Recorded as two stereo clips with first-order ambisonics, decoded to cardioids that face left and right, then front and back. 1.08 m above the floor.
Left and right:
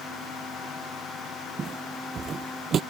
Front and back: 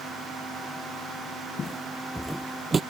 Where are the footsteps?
45° right; by 2.8 s 125° right.